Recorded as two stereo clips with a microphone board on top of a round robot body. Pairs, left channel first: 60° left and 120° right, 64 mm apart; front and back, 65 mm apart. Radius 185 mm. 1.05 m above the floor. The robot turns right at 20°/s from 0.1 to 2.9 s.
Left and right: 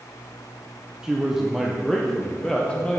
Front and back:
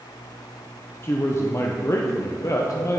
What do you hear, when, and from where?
1.0 s a man speaking: 45° right, 0.9 m; by 3.0 s 5° right, 0.9 m